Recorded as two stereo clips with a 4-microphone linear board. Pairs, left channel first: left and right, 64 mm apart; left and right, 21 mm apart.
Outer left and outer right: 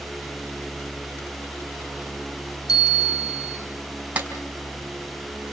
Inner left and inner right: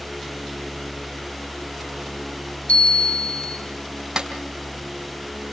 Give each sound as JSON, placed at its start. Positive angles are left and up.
{"t": 2.7, "sound": "a bell", "side_deg": 75, "distance_m": 3.0}
{"t": 4.2, "sound": "a clap", "side_deg": -20, "distance_m": 4.0}